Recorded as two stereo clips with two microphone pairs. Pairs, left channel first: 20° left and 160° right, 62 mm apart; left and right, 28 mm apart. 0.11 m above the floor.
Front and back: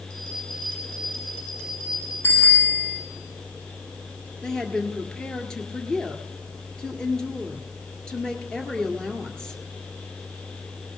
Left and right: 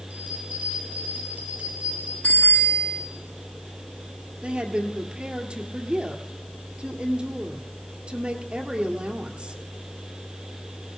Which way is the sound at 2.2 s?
70° left.